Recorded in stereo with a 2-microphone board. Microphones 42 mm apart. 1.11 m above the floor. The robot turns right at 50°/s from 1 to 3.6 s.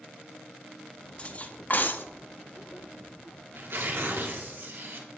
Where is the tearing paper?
65° right (ahead or behind), 1.9 m; by 5.1 s 70° right (ahead or behind), 1.9 m.